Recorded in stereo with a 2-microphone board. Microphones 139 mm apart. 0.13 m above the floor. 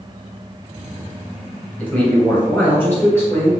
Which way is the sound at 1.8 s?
10° left (ahead or behind).